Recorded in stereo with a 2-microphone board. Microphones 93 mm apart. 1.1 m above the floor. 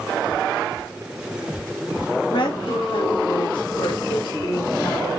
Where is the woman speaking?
75° left (ahead or behind), 3 m; by 5.1 s 65° left (ahead or behind), 5.5 m.